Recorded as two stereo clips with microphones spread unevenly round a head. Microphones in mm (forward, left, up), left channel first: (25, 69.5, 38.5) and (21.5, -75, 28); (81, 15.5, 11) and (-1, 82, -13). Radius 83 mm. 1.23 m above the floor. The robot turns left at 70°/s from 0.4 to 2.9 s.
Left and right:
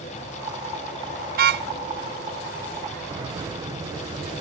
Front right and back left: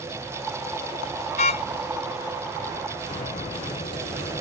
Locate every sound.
1.4 s a car horn: 70° right; by 1.7 s 95° right
3.1 s a bird: 35° right